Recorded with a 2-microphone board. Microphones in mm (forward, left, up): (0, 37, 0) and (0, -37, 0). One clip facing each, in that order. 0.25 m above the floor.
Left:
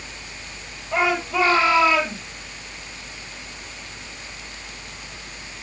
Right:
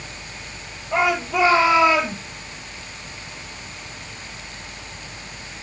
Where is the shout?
10° right (ahead or behind), 8 m; by 2.2 s 15° right (ahead or behind), 7 m.